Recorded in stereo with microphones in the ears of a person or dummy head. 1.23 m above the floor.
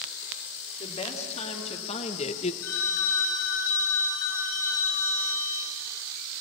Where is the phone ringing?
80° left, 4 m.